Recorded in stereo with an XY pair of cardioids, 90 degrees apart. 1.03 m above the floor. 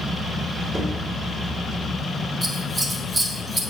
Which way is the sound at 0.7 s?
25° right.